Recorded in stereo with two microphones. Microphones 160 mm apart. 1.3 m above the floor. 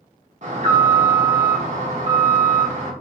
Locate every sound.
0.4 s an alarm: 45° right (ahead or behind), 1.5 m